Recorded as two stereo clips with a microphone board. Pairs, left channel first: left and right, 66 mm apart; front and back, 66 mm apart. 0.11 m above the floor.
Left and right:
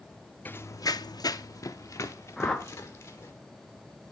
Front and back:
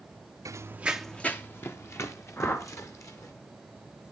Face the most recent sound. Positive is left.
turn(degrees=15)